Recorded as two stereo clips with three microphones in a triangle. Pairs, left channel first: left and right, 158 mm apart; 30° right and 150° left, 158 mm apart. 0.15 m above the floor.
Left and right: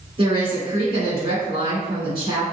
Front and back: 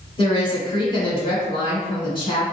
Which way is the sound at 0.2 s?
65° right.